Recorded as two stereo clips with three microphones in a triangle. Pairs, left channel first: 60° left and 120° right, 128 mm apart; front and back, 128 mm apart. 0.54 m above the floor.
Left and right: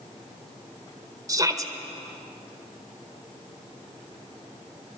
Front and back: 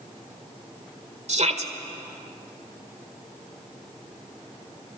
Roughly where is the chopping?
No chopping in this recording.